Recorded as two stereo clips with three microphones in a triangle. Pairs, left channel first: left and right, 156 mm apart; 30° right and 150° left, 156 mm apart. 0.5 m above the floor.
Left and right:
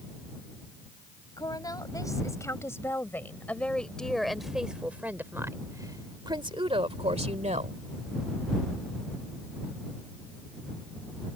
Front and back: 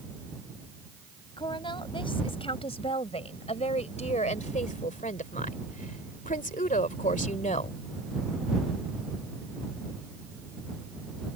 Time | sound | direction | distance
1.4 | a woman speaking | 25° left | ?